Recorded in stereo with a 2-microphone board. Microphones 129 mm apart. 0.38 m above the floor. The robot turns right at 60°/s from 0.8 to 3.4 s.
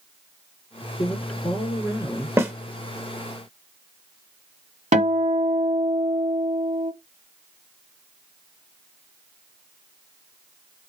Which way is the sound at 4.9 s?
75° right (ahead or behind).